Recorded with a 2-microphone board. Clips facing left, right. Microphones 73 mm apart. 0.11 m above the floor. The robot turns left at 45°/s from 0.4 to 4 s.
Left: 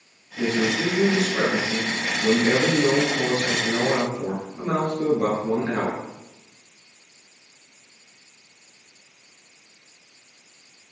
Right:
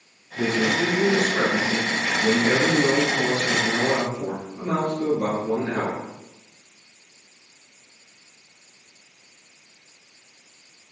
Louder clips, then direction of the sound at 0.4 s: Right 1 dB; 85° right.